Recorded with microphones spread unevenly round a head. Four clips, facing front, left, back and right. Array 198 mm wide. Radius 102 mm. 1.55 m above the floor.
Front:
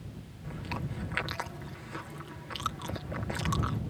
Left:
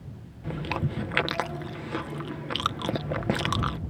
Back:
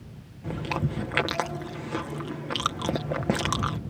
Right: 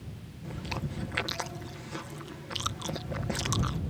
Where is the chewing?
150° left.